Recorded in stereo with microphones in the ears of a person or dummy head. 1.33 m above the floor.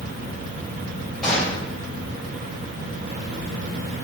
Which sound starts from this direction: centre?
A gunshot, at 1.2 s.